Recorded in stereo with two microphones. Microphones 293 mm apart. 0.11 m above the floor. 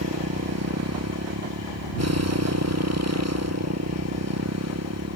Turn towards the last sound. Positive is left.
turn(degrees=-55)  # may be behind; listen again after turning